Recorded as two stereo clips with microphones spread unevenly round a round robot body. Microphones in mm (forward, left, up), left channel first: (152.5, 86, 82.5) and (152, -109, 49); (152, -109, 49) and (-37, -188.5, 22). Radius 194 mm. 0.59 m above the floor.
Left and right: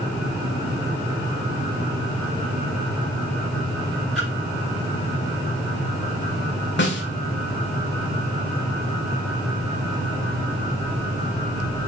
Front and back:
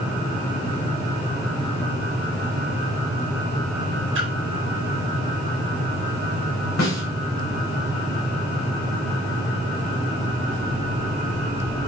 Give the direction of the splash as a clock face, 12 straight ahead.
6 o'clock.